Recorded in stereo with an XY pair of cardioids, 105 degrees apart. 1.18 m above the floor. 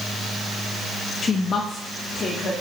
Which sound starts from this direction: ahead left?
A woman speaking, at 1.2 s.